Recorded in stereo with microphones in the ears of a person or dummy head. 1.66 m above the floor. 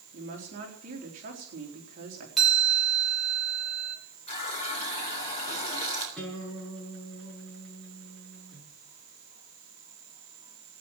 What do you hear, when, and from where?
0.1 s a woman speaking: 55° right (ahead or behind), 3.5 m
2.4 s a chime: 10° right (ahead or behind), 3 m
4.3 s a running tap: 30° left (ahead or behind), 3.5 m
6.2 s a guitar: 5° right (ahead or behind), 7.5 m